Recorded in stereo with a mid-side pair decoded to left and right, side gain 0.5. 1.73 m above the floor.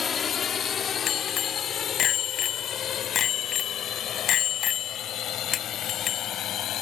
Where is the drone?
40° left; by 6.8 s 60° left.